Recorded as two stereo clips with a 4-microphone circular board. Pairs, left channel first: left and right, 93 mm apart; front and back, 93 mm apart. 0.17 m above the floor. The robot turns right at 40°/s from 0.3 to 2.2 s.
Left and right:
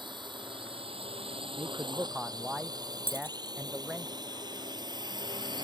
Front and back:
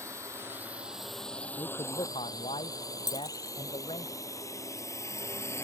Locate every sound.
0.0 s a drone: 120° right; by 5.6 s 60° right
1.6 s a man speaking: 40° right; by 4.1 s 15° right
3.1 s a dropped coin: 155° left